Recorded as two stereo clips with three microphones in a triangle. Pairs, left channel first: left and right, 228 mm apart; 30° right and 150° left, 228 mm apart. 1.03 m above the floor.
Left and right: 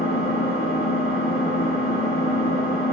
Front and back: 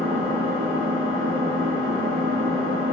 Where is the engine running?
100° left, 0.9 m.